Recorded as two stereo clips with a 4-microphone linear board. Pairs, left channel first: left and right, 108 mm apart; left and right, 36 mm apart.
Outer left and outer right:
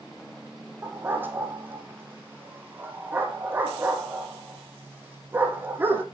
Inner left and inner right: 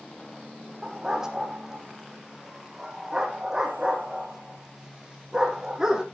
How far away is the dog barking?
About 3 m.